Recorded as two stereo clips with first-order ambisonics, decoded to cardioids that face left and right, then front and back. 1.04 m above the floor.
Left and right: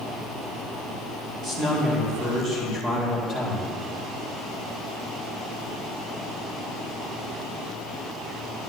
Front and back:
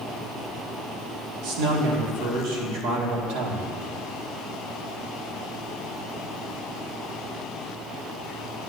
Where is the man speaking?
160° right, 2 m.